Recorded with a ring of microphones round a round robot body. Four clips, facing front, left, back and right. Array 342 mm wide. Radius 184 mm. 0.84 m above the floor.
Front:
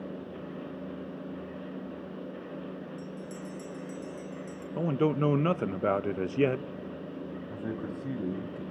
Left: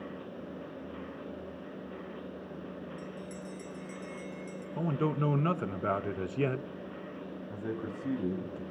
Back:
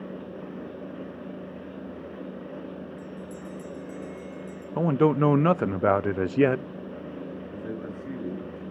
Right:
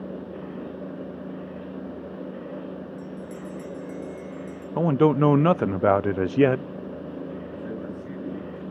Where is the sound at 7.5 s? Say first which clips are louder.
Right 4 dB, front 2 dB; 25° left, 5.5 m.